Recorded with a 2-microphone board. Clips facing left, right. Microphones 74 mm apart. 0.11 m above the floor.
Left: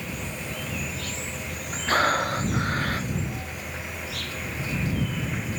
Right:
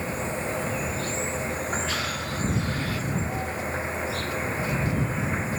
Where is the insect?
30° right (ahead or behind).